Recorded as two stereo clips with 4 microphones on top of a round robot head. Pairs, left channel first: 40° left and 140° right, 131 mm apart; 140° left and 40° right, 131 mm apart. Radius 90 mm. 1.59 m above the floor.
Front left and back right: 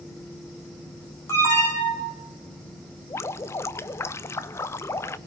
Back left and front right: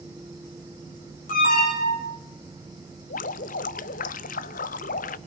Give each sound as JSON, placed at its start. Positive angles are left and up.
{"t": 1.3, "sound": "an alarm", "azimuth_deg": 110, "distance_m": 9.0}
{"t": 3.1, "sound": "dripping", "azimuth_deg": 110, "distance_m": 0.6}